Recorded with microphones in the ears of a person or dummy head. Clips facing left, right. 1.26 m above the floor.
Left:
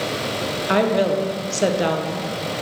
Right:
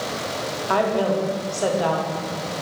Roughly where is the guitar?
I don't hear a guitar.